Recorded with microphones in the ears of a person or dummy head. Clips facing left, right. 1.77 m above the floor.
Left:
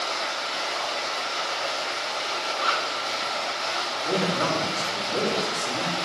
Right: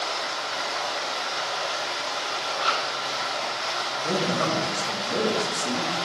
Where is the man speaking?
75° right (ahead or behind), 3 m.